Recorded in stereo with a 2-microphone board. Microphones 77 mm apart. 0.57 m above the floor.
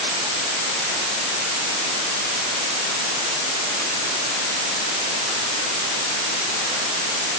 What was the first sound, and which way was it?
Only background noise.